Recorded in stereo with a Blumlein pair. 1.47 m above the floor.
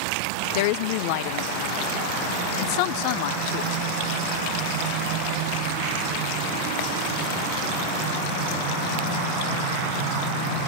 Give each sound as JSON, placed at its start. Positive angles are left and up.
{"t": 0.6, "sound": "a woman speaking", "azimuth_deg": 45, "distance_m": 0.7}